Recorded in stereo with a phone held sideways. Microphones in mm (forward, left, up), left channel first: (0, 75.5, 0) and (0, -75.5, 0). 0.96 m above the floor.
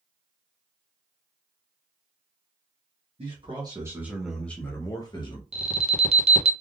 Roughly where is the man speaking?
Right.